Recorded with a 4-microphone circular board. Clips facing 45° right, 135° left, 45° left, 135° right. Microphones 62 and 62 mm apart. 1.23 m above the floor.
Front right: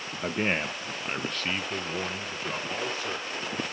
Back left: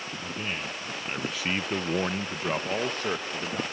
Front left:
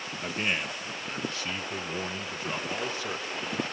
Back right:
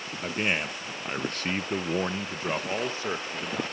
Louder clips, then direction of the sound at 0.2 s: Front right 8 dB, back right 3 dB; 65° right.